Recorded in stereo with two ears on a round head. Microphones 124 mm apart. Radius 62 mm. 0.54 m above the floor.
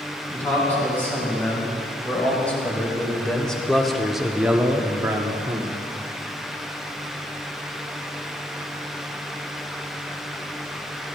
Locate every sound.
0.3 s a man speaking: 15° left (ahead or behind), 4 m; by 5.8 s 25° right (ahead or behind), 1.2 m